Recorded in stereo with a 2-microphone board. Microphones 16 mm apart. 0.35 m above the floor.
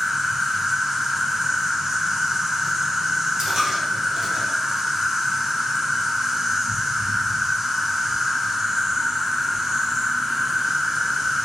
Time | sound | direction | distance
0.0 | an insect | 30° right (ahead or behind) | 0.8 m
3.4 | a dropped coin | 55° right (ahead or behind) | 1.4 m